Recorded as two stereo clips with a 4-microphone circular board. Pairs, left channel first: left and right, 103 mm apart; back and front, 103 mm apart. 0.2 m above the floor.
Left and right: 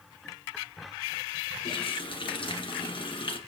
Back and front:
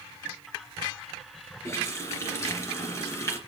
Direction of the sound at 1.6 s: 120° left.